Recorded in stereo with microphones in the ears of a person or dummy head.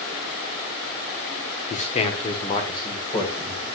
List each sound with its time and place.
1.7 s a man speaking: 35° left (ahead or behind), 0.9 m; by 3.6 s 20° left (ahead or behind), 1.9 m